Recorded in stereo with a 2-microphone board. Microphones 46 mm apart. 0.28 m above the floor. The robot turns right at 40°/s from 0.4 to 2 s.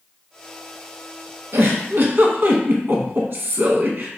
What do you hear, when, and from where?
1.5 s a giggle: 75° right (ahead or behind), 0.5 m; by 4.1 s 55° right (ahead or behind), 0.5 m